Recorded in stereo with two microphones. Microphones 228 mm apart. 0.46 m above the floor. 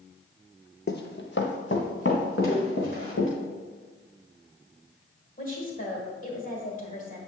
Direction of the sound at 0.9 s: 50° left (ahead or behind).